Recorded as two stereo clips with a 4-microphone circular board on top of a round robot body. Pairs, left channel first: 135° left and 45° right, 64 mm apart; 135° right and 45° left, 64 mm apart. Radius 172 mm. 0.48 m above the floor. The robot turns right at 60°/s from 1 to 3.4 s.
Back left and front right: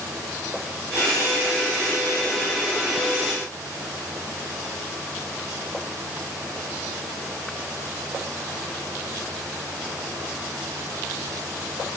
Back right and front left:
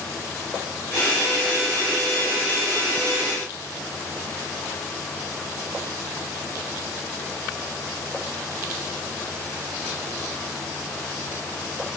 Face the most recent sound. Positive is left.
No sound to turn to.